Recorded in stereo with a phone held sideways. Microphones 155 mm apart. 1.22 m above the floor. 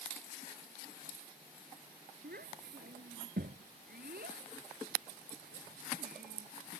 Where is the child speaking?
90° right; by 6.5 s 75° right (ahead or behind).